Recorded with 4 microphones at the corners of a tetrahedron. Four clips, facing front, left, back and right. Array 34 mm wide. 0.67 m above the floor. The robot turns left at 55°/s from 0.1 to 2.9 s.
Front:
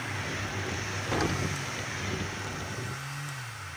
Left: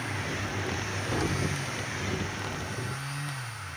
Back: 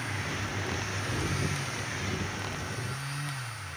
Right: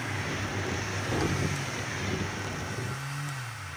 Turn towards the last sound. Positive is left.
turn(degrees=-100)